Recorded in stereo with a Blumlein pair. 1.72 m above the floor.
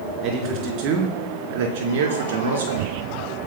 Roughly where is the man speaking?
Ahead right.